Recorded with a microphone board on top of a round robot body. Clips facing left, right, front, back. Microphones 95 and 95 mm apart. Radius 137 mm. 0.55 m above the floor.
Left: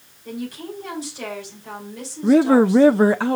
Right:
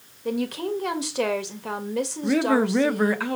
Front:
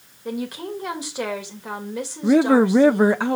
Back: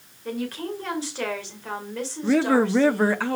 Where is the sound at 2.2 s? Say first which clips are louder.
Left 8 dB, front 4 dB; 55° left, 0.7 m.